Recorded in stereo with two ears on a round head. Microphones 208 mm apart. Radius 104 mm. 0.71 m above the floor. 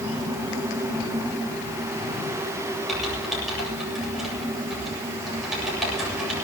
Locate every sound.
2.9 s typing on a keyboard: centre (ahead or behind), 8.5 m